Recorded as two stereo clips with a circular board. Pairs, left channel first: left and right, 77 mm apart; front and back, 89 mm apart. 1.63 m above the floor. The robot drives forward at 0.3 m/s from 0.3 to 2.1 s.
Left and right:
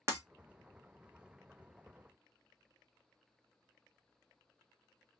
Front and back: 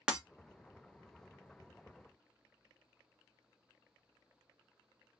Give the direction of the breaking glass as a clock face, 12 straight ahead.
4 o'clock.